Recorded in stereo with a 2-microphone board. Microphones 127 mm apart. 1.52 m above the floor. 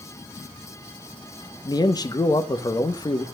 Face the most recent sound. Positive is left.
turn(degrees=30)  # may be behind; listen again after turning